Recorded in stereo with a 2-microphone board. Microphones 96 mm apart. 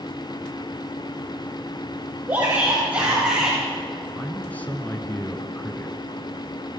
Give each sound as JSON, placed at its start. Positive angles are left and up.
{"t": 2.3, "sound": "a shout", "side_deg": -20, "distance_m": 3.5}
{"t": 4.2, "sound": "a man speaking", "side_deg": 15, "distance_m": 1.2}